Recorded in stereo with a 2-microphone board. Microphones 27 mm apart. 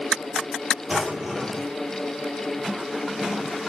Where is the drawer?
10° right (ahead or behind), 1.9 m.